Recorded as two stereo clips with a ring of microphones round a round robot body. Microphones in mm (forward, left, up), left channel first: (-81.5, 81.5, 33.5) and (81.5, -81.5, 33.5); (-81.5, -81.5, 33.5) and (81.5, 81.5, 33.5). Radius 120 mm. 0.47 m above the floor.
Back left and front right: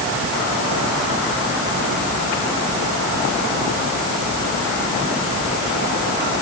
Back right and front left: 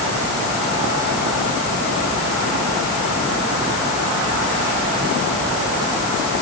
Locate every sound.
Only background noise.